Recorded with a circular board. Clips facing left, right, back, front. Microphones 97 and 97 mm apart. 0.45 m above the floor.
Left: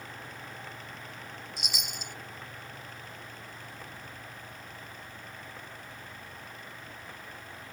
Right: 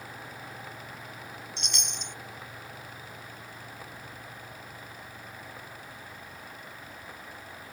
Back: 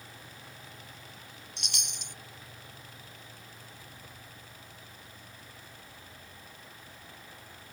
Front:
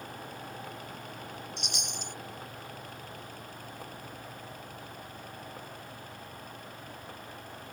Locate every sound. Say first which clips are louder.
1.6 s a chime: right 1 dB, front 5 dB; 175° left